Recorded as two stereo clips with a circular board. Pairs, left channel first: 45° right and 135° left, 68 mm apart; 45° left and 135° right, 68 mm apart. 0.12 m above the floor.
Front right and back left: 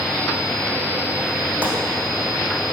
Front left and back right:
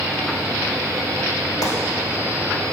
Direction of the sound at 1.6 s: 70° left.